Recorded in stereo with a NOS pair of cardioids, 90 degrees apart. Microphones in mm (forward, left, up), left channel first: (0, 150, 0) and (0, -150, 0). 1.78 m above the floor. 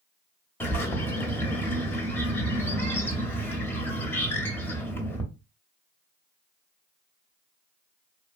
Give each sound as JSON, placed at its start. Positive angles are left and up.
{"t": 0.6, "sound": "a bird", "azimuth_deg": 5, "distance_m": 0.8}